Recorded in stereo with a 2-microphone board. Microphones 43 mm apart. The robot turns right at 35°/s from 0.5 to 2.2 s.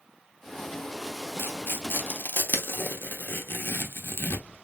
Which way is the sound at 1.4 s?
55° left (ahead or behind).